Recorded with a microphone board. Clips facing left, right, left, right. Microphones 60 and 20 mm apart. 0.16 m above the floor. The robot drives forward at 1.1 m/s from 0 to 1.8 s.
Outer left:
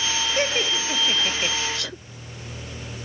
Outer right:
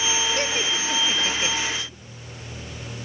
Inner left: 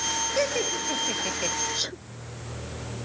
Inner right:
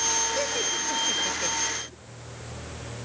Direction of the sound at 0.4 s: 20° left (ahead or behind).